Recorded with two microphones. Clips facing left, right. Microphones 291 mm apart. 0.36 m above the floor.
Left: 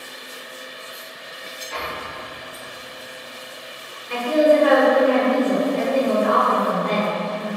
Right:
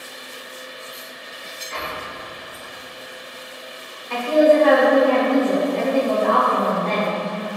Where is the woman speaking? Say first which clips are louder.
Right 1 dB; 15° left (ahead or behind), 0.8 m.